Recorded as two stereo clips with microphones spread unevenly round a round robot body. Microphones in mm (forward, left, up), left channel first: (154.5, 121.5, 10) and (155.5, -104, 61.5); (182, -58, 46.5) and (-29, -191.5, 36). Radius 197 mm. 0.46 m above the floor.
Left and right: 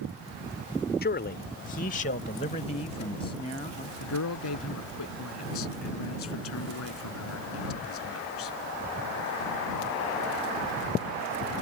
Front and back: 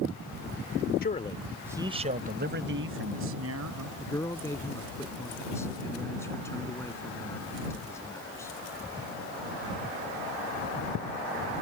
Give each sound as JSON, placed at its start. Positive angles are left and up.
{"t": 1.0, "sound": "a man speaking", "azimuth_deg": 85}
{"t": 4.0, "sound": "a man speaking", "azimuth_deg": 115}